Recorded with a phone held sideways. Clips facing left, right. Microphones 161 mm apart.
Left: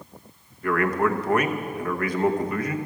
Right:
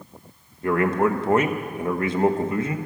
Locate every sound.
0.6 s a man speaking: 25° right (ahead or behind), 1.0 m